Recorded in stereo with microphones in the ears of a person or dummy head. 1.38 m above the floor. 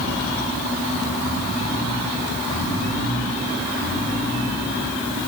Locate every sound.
Only background noise.